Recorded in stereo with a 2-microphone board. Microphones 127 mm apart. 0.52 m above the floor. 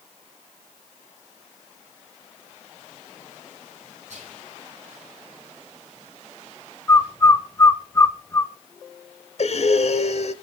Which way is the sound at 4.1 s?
60° right (ahead or behind).